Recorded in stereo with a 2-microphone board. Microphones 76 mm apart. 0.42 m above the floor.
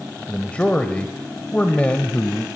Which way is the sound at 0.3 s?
15° left (ahead or behind).